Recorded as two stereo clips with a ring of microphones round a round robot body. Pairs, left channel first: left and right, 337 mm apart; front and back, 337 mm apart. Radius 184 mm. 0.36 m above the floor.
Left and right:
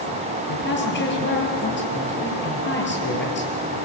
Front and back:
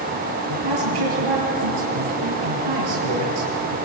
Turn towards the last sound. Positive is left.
turn(degrees=150)